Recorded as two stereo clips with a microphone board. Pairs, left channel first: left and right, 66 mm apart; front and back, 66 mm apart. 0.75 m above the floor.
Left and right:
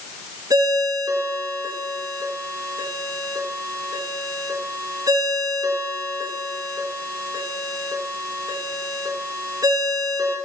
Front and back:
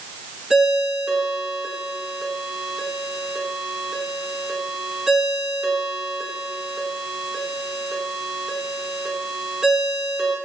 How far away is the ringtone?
About 6 m.